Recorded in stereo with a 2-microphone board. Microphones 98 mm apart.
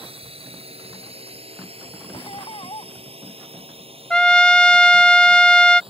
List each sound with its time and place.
0.0 s a drone: 75° right (ahead or behind); by 5.9 s 65° right (ahead or behind)
2.1 s laughter: 65° left (ahead or behind)
4.1 s a trumpet: 10° left (ahead or behind)